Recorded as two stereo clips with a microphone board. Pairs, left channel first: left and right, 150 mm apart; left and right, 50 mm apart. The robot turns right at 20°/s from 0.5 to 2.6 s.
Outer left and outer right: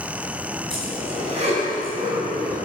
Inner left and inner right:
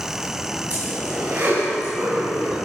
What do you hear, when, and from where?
0.7 s a zipper: 35° right (ahead or behind), 5 m; by 2.6 s 70° right (ahead or behind), 5 m